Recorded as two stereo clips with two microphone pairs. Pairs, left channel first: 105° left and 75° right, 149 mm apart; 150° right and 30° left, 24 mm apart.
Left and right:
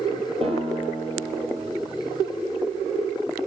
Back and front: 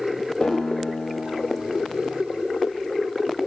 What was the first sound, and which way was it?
A guitar, 120° right.